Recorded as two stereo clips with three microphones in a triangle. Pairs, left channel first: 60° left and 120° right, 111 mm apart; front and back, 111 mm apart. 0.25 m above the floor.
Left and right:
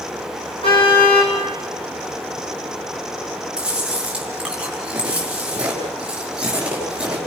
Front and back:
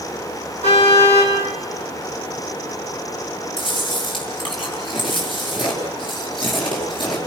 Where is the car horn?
20° left, 6.5 m.